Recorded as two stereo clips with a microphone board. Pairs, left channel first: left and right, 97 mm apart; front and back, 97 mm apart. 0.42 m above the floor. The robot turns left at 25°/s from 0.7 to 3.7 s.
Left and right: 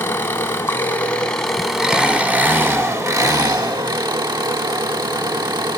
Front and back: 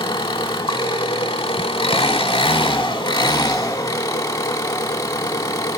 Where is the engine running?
25° left, 0.7 m; by 5.8 s 50° right, 0.7 m.